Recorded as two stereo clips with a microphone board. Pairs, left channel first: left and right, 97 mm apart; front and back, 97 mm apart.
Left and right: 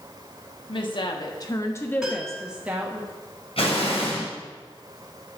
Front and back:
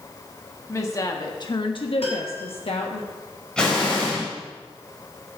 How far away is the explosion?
About 3.5 m.